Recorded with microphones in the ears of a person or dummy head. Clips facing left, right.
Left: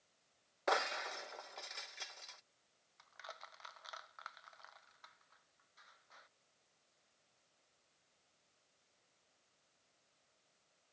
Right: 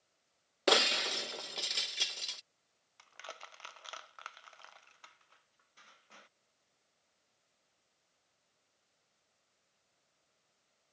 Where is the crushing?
45° right (ahead or behind).